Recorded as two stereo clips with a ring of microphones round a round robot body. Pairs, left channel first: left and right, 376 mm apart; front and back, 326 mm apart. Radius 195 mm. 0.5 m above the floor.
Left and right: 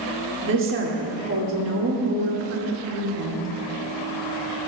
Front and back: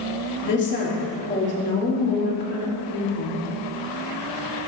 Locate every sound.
0.4 s a woman speaking: 45° right, 1.5 m